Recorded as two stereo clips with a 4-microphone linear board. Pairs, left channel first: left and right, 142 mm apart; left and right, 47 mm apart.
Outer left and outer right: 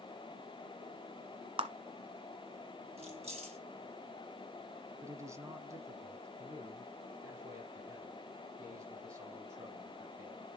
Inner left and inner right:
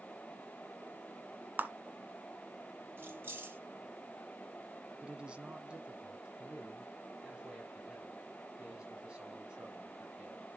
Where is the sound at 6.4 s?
25° right (ahead or behind), 5.5 m.